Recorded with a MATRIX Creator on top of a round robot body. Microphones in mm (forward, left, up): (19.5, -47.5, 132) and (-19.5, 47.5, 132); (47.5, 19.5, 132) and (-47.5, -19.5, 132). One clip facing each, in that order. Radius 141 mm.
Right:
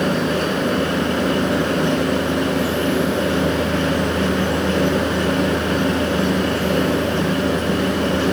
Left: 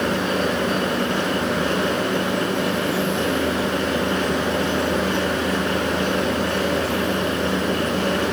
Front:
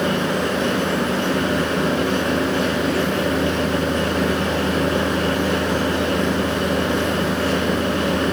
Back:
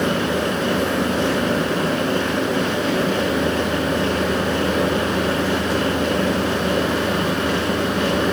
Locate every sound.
Only background noise.